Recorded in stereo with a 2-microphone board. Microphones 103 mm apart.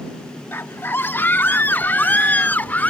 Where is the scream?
20° left (ahead or behind); by 2.9 s 15° left (ahead or behind).